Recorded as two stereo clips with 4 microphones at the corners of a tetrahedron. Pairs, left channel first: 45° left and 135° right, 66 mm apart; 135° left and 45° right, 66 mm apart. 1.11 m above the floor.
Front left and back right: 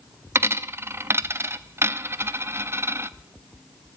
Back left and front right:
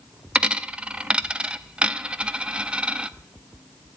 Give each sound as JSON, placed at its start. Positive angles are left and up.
{"t": 0.3, "sound": "a dropped coin", "azimuth_deg": -115, "distance_m": 0.6}